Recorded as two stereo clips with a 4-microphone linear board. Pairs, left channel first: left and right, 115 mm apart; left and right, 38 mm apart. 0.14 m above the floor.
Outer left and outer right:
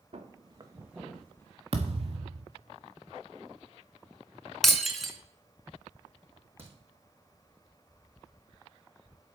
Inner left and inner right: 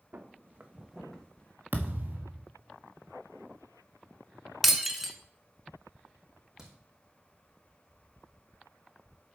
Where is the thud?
50° right (ahead or behind), 1.2 m.